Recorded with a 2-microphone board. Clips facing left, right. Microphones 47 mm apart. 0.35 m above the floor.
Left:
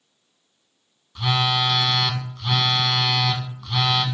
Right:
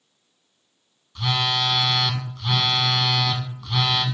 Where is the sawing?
No sawing in this recording.